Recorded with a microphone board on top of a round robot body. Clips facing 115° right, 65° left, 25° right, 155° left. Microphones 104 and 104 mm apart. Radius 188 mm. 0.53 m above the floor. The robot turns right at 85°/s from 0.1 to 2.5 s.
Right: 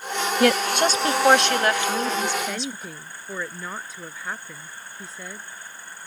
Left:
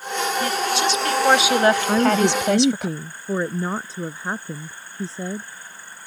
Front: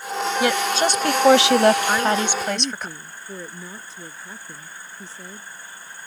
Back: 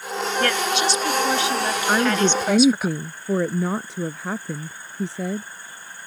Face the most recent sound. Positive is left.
turn(degrees=130)